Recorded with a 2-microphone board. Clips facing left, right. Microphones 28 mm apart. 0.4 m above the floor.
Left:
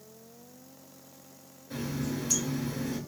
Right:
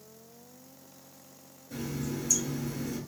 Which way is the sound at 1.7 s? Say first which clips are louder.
Left 2 dB; 55° left (ahead or behind).